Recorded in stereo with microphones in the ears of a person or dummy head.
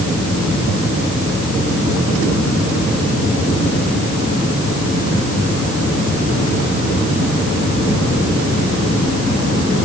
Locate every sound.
Only background noise.